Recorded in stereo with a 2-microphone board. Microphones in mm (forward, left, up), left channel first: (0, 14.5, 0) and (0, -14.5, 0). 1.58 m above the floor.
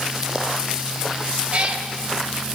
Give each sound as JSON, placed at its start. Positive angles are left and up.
{"t": 1.5, "sound": "a cat meowing", "side_deg": -50, "distance_m": 2.5}